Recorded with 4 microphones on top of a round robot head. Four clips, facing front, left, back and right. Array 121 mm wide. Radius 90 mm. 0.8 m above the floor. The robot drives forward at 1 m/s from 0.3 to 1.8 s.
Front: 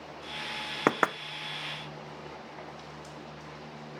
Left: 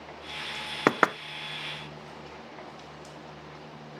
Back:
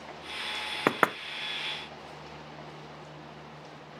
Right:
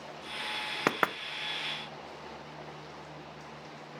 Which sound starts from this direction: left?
Knocking, at 0.9 s.